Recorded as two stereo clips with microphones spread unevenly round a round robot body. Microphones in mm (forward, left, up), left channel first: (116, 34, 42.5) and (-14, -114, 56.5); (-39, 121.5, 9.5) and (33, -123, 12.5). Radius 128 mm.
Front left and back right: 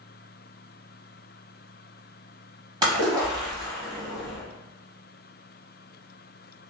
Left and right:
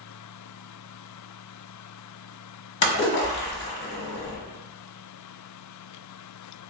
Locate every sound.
2.8 s a splash: 155° left, 1.0 m